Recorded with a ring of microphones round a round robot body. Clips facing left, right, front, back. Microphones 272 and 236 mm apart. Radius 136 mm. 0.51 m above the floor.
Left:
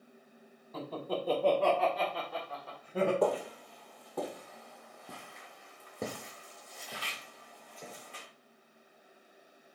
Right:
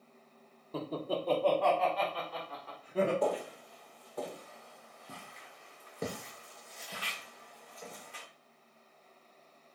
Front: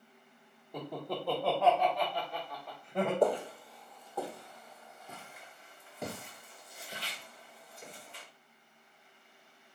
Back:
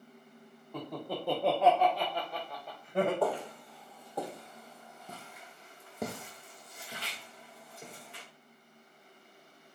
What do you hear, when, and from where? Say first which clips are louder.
0.7 s laughter: right 1 dB, even; 65° right, 0.7 m; by 3.1 s 125° left, 2 m
3.2 s footsteps: left 2 dB, front 3 dB; 70° left, 0.8 m; by 8.2 s 150° left, 2.5 m